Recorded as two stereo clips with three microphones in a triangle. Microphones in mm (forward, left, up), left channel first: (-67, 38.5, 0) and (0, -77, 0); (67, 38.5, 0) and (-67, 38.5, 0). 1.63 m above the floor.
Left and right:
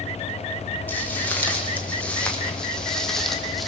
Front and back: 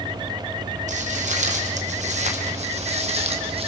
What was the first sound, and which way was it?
Footsteps, 165° right.